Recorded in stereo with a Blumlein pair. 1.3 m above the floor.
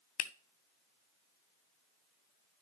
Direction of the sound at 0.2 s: 35° left.